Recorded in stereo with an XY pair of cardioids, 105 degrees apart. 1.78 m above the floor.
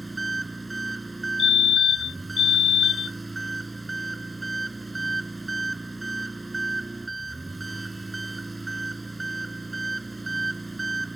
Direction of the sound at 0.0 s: 10° right.